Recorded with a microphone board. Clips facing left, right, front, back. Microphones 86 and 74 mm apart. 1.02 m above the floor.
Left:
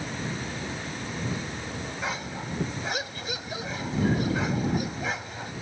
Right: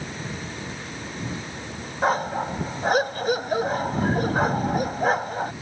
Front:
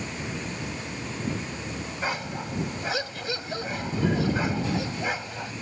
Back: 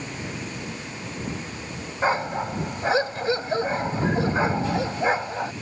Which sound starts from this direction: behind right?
A dog barking, at 2.0 s.